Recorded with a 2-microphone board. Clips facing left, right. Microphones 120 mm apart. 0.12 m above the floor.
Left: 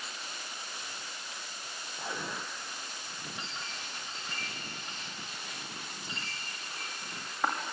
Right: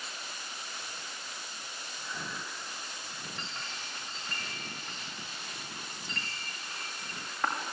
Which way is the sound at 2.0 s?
75° left (ahead or behind).